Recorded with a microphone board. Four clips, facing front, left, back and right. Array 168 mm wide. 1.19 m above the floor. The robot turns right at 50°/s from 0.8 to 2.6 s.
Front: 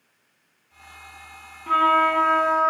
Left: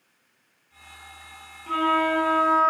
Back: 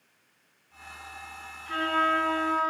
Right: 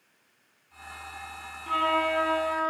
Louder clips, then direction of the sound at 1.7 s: Left 3 dB, front 8 dB; 5° right.